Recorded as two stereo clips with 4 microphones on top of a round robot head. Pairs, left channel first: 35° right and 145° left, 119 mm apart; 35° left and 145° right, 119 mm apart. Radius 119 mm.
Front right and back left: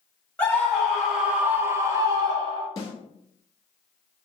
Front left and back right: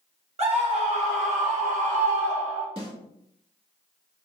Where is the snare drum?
95° right, 1.9 m.